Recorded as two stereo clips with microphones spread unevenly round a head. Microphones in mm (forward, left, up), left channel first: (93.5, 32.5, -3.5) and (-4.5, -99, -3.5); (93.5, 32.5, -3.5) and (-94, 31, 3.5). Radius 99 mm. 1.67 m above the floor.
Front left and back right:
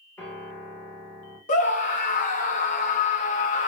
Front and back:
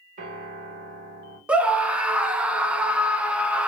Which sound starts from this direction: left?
A scream, at 1.5 s.